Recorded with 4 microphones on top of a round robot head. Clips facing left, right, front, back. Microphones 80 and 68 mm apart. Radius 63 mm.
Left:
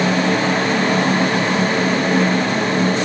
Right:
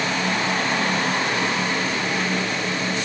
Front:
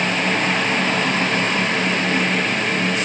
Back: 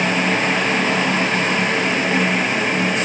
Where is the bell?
No bell in this recording.